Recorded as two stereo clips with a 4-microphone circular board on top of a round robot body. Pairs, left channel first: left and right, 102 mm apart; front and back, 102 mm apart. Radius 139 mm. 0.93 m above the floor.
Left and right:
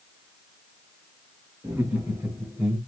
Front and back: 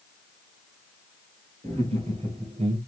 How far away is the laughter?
About 3 m.